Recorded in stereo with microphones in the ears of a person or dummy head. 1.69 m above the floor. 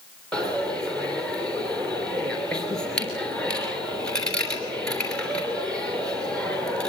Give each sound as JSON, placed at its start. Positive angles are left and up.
{"t": 0.3, "sound": "a dropped coin", "side_deg": 5, "distance_m": 3.0}